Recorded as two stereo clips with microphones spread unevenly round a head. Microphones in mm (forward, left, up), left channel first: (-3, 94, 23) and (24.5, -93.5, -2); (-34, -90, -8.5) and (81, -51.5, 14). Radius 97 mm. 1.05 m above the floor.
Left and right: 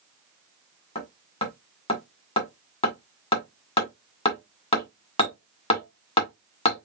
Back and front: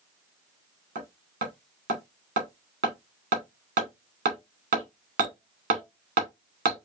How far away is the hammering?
About 2 m.